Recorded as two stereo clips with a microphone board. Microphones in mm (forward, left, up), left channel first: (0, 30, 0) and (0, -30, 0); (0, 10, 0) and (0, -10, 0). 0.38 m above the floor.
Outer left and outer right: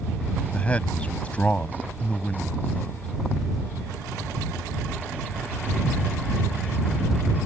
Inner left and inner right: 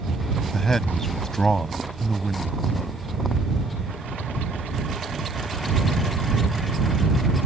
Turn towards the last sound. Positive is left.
turn(degrees=20)  # may be behind; listen again after turning